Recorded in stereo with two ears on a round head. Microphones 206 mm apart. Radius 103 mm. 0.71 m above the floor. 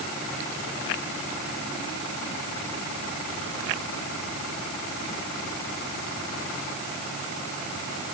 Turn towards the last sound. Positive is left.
No sound to turn to.